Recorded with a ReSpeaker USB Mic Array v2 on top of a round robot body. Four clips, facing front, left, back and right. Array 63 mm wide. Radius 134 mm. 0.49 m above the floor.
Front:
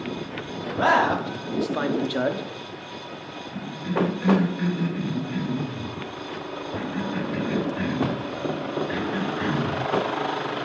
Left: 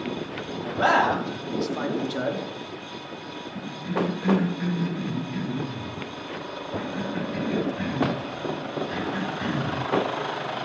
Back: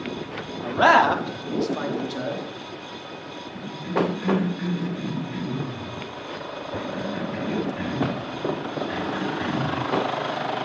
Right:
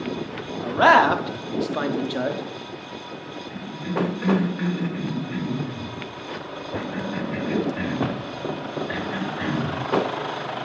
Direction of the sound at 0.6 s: 125° right.